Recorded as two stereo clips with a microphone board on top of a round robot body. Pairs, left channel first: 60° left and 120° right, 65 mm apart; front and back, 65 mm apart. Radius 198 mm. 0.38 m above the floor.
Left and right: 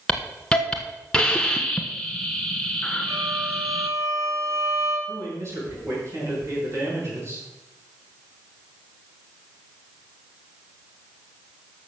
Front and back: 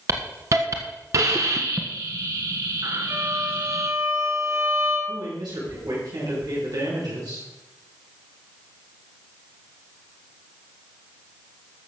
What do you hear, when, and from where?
0.1 s a hiss: 135° left, 1.0 m
3.1 s a violin: 170° right, 3.5 m
5.1 s a man speaking: 170° right, 7.5 m